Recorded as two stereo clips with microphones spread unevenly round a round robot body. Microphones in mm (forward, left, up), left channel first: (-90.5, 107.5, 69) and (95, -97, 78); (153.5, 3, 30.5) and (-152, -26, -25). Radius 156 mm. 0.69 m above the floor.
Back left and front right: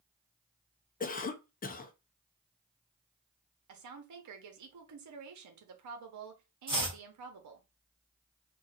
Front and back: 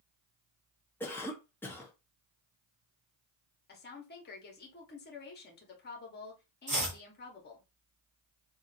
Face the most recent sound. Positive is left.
turn(degrees=-115)